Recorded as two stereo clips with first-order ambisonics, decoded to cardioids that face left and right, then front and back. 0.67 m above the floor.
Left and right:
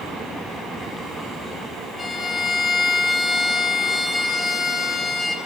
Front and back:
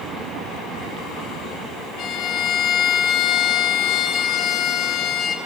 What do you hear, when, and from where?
2.0 s a violin: 25° left, 1.3 m